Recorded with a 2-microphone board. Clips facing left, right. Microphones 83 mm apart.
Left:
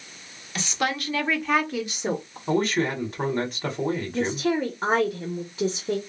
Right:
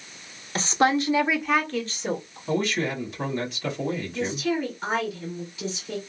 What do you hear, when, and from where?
0.6 s a woman speaking: 40° right (ahead or behind), 0.9 m; by 2.4 s 30° left (ahead or behind), 0.9 m
2.5 s a man speaking: 45° left (ahead or behind), 1.8 m
4.1 s a woman speaking: 45° left (ahead or behind), 1.0 m